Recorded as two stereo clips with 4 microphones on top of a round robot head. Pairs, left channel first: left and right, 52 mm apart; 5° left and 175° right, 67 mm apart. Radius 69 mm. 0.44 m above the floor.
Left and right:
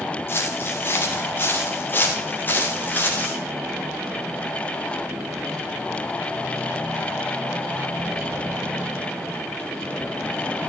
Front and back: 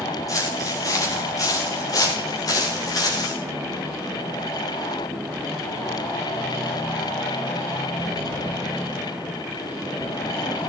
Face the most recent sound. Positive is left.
turn(degrees=30)